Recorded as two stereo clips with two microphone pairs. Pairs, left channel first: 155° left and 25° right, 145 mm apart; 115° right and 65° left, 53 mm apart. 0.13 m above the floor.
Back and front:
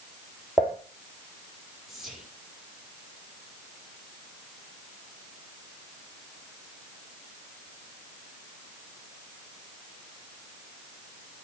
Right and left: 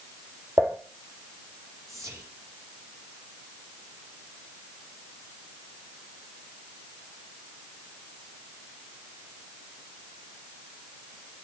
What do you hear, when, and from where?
0.6 s dishes clattering: 70° left, 2.5 m
1.9 s whispering: 60° left, 4.5 m